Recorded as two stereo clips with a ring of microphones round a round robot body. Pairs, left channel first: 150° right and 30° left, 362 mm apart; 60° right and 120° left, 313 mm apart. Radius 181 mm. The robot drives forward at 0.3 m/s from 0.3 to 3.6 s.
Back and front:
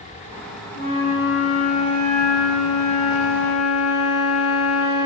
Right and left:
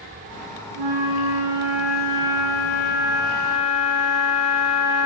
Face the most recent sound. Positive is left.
turn(degrees=165)